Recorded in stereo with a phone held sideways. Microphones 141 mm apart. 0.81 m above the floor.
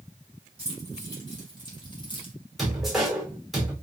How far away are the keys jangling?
About 3 m.